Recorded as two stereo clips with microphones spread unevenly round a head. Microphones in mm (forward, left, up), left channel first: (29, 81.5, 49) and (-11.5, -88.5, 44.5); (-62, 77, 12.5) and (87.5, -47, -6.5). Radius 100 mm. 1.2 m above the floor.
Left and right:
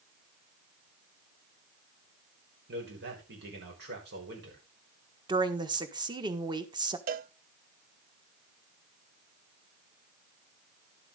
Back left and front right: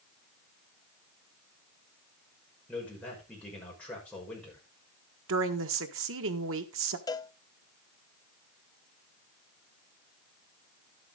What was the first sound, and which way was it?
A man speaking, 135° right.